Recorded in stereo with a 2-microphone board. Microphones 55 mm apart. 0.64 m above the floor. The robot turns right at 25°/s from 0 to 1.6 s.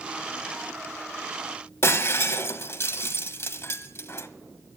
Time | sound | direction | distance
1.8 | breaking glass | 50° left (ahead or behind) | 1.1 m